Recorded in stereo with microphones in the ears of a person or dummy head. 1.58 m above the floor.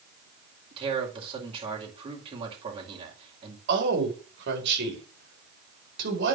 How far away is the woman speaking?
About 4 m.